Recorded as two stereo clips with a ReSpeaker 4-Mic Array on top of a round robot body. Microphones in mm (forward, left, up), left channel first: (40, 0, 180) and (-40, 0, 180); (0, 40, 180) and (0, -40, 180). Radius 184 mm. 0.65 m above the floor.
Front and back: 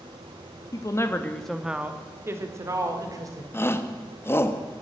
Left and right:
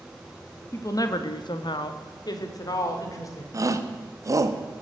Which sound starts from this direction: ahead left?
A woman speaking, at 0.7 s.